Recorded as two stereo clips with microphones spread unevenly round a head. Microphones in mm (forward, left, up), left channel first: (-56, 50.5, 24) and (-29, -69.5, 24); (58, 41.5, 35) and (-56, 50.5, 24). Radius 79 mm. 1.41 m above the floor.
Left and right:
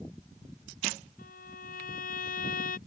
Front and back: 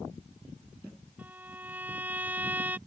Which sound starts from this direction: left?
A violin, at 1.2 s.